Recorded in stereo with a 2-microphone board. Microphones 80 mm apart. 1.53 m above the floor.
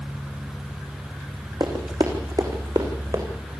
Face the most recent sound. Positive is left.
turn(degrees=-55)  # may be behind; listen again after turning